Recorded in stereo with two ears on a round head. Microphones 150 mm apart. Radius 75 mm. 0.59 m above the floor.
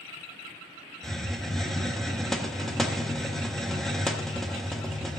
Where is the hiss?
Centre (ahead or behind), 1.0 m.